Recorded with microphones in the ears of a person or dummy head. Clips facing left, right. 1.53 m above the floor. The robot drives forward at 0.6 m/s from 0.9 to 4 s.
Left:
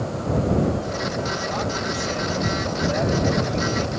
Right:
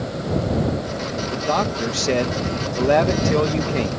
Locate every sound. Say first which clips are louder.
1.3 s a man speaking: right 4 dB; 70° right (ahead or behind); by 3.9 s 65° right (ahead or behind)